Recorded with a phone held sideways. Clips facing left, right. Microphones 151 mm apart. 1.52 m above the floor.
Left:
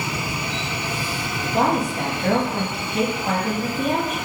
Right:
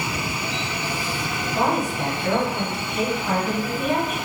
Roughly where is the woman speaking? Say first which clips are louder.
Left 2 dB; left.